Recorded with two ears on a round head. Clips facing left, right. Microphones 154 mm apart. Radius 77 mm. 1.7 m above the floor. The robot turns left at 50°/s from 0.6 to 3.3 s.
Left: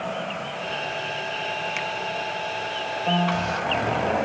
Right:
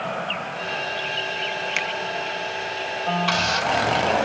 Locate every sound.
1.8 s a finger snap: 60° right (ahead or behind); by 1.9 s 65° right (ahead or behind)
3.1 s a piano: 20° left (ahead or behind); by 3.9 s 5° left (ahead or behind)